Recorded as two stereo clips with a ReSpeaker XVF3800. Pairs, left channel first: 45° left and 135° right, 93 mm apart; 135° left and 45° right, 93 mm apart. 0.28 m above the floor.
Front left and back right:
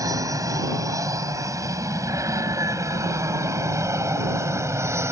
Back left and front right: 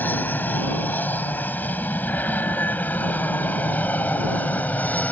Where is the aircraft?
165° right.